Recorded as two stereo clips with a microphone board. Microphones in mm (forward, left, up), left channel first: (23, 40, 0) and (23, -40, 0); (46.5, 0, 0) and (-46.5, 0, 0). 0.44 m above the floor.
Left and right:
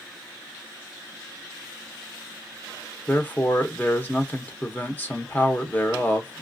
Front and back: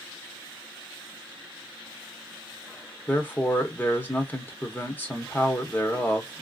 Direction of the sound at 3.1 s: 45° left.